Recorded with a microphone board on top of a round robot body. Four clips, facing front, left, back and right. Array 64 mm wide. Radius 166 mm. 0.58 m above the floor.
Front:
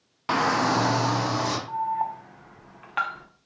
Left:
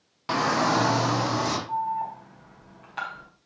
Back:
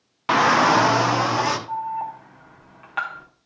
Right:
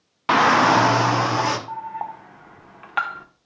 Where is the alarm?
90° right, 1.4 m.